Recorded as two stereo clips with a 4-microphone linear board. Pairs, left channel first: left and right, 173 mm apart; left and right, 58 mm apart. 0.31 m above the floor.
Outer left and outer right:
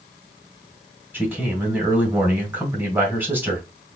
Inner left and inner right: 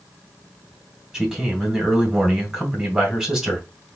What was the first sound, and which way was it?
A man speaking, 10° right (ahead or behind).